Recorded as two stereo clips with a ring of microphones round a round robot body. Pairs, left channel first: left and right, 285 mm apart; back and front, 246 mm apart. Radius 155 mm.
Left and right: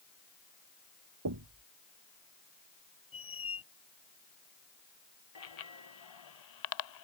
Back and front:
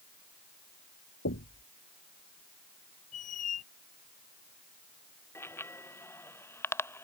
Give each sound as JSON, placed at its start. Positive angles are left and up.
{"t": 1.2, "sound": "knocking", "azimuth_deg": -125}
{"t": 3.1, "sound": "a squeak", "azimuth_deg": 160}
{"t": 5.3, "sound": "a bicycle bell", "azimuth_deg": 100}